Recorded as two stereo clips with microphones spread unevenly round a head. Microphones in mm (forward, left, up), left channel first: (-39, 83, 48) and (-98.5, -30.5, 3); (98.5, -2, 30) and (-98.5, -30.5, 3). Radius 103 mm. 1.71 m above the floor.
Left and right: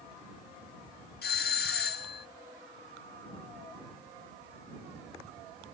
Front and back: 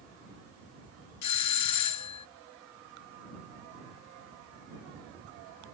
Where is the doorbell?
20° left.